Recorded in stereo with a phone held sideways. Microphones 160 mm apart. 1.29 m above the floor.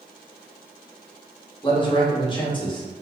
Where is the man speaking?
30° left (ahead or behind), 1.2 m.